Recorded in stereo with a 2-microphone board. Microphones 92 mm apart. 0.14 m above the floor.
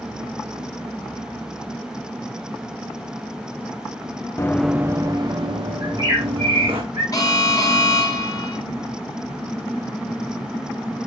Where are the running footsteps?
30° left (ahead or behind), 0.7 m; by 6.8 s 70° right (ahead or behind), 3.5 m.